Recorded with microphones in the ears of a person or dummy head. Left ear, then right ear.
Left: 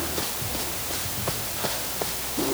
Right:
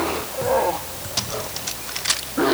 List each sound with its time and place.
Only background noise.